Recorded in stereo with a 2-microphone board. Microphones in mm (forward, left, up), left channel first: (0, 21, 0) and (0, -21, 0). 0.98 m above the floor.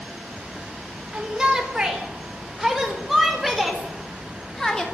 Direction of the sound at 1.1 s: 20° right (ahead or behind).